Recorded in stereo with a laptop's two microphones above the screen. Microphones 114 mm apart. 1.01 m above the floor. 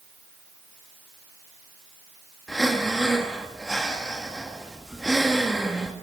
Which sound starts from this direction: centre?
Breathing, at 2.5 s.